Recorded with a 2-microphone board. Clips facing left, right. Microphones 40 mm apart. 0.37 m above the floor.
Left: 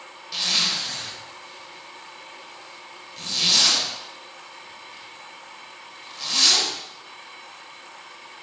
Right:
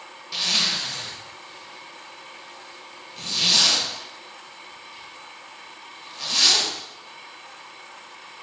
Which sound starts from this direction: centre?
A zipper, at 0.3 s.